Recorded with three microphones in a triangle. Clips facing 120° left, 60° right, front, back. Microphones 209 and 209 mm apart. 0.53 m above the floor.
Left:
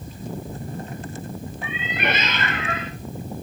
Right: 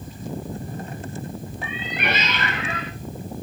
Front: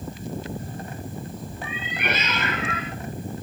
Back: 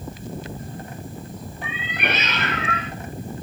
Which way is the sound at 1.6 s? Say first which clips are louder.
Left 2 dB, back 2 dB; 155° left.